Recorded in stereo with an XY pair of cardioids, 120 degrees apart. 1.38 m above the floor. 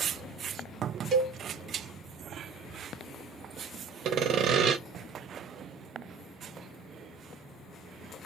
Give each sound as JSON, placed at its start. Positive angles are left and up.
{"t": 1.1, "sound": "a cowbell", "azimuth_deg": -55, "distance_m": 0.8}
{"t": 4.0, "sound": "sawing", "azimuth_deg": -65, "distance_m": 0.7}